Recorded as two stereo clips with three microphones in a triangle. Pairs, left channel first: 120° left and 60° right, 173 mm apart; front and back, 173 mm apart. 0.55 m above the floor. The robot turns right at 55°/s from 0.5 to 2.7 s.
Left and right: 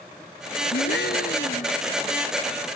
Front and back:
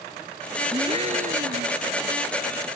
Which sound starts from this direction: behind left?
A gasp, at 0.7 s.